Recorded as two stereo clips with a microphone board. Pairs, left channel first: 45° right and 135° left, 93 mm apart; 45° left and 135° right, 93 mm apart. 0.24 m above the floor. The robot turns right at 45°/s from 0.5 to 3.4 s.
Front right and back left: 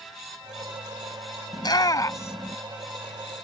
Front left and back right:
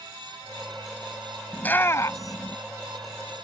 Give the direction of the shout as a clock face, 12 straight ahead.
1 o'clock.